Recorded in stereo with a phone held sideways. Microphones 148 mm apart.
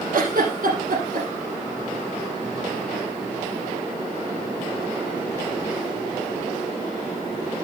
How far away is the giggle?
About 7 m.